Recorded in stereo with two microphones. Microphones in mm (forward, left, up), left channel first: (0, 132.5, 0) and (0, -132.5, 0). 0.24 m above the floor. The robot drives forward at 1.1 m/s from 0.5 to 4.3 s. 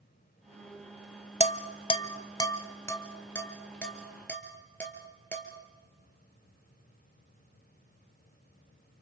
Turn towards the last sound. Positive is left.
turn(degrees=5)  # may be behind; listen again after turning